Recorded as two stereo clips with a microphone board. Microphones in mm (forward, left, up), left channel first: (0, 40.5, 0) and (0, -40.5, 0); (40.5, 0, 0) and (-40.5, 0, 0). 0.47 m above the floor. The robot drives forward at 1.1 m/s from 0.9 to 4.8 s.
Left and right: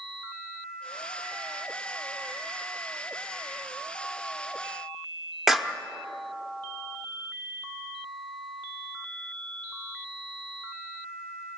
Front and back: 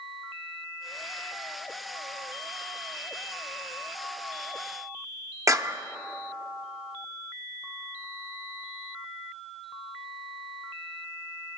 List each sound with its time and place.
5.5 s a clap: 175° right, 0.6 m